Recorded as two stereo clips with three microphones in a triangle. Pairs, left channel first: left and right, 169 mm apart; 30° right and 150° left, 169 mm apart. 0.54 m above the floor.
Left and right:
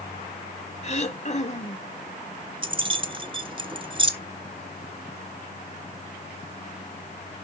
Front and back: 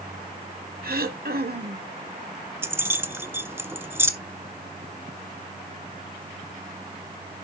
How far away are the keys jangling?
About 1.0 m.